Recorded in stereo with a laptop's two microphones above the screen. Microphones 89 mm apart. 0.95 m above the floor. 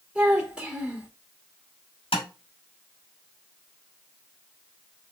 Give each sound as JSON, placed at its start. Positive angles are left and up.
{"t": 0.1, "sound": "a child speaking", "side_deg": -10, "distance_m": 1.5}
{"t": 2.1, "sound": "tapping", "side_deg": 75, "distance_m": 1.9}